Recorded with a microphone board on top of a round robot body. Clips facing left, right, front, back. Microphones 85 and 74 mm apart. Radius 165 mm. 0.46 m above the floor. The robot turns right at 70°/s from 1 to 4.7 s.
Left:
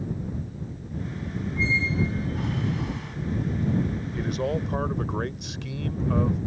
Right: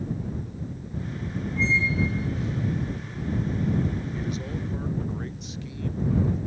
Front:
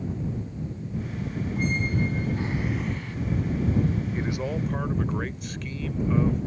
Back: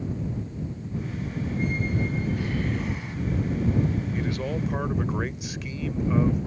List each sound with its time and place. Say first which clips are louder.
1.6 s a squeak: right 1 dB, front 1 dB; 5° left; by 3.2 s 115° left
4.1 s a man speaking: left 5 dB, even; 60° left; by 6.5 s 100° left